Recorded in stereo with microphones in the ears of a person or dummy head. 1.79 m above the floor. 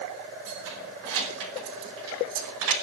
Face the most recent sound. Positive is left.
turn(degrees=-75)  # may be behind; listen again after turning